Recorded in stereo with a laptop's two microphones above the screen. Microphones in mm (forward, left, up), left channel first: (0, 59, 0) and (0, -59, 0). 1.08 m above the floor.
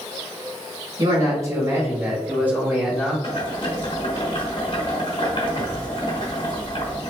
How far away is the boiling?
About 1.1 m.